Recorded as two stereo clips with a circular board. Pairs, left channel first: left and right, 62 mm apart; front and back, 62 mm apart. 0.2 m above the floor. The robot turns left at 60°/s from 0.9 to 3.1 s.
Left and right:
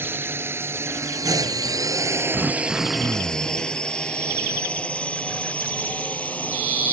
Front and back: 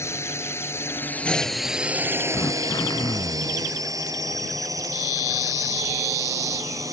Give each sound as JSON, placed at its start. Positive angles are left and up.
{"t": 0.0, "sound": "a drone", "azimuth_deg": -40}
{"t": 2.3, "sound": "throat clearing", "azimuth_deg": 10}